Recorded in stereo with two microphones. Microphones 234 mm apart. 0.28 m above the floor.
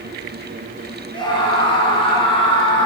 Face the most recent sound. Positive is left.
turn(degrees=20)  # may be behind; listen again after turning